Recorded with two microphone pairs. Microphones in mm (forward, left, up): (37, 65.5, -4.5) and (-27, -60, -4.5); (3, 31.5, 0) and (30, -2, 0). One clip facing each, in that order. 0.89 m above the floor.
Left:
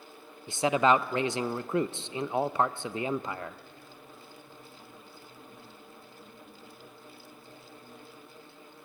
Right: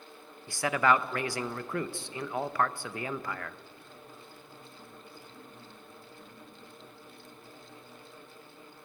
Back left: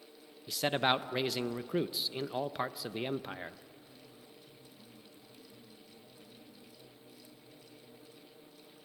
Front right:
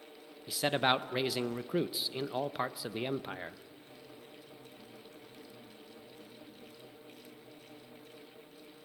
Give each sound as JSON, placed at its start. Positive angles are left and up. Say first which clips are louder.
{"t": 0.5, "sound": "a man speaking", "louder": "left 3 dB, front right 1 dB", "azimuth_deg": 35, "distance_m": 0.6}